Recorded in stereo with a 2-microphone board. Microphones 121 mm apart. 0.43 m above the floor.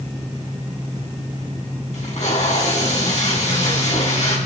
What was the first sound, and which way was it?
Tape being pulled, 75° left (ahead or behind).